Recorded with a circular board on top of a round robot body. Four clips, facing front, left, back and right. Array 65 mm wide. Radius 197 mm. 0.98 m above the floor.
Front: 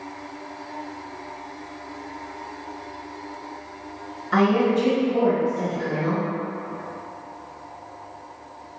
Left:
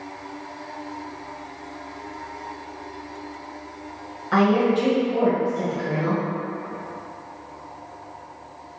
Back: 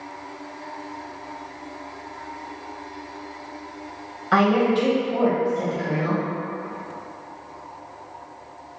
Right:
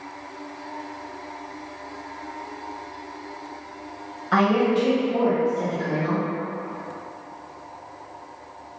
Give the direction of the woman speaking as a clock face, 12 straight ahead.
6 o'clock.